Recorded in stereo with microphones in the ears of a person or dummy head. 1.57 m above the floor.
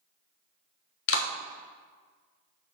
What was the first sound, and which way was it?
A clap, 75° left (ahead or behind).